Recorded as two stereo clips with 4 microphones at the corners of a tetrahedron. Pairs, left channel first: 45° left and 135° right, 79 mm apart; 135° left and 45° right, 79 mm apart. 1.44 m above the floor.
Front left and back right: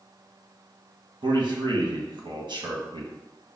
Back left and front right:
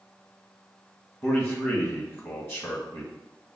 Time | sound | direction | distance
1.2 | a man speaking | 165° right | 1.4 m